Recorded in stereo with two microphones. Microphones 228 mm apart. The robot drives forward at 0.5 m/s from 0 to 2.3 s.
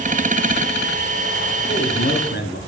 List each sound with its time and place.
1.7 s a man speaking: 45° left (ahead or behind), 2.5 m; by 2.6 s 50° left (ahead or behind), 2.5 m